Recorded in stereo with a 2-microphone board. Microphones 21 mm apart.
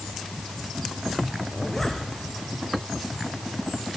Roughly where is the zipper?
Centre.